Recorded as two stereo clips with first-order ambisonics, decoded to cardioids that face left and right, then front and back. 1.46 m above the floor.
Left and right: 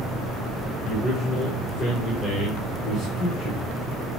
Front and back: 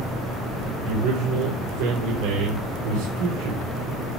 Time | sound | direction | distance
0.8 | a man speaking | 165° left | 5 m